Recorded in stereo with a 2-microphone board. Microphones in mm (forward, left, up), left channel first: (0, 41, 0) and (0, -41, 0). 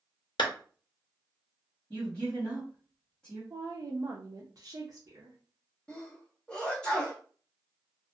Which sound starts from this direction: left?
A clap, at 0.4 s.